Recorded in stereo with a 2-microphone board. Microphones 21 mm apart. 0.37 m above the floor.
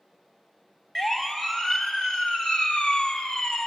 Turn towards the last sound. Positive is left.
turn(degrees=40)  # may be behind; listen again after turning